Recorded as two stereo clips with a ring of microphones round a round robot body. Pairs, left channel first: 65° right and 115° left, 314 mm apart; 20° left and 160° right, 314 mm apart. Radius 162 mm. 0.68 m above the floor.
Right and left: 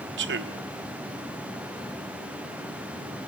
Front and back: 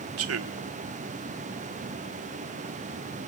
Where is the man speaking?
165° left, 1.6 m.